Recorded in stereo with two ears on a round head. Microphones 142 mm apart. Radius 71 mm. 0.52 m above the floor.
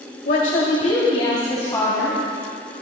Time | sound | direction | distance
0.2 | a woman speaking | 60° left (ahead or behind) | 1.8 m